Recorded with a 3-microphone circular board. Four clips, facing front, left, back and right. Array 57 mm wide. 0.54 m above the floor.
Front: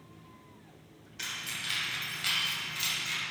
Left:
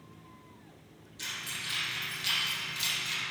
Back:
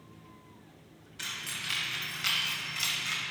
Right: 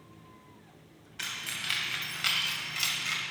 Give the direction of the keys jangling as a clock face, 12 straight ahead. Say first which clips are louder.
Right 2 dB, even; 3 o'clock.